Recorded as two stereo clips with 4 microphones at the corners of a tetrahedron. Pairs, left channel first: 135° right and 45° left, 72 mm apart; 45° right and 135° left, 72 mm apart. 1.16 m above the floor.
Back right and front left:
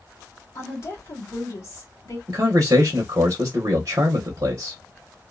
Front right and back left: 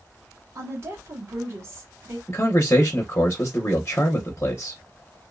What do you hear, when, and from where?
0.6 s a woman speaking: straight behind, 1.5 m
2.3 s a man speaking: 10° left, 0.8 m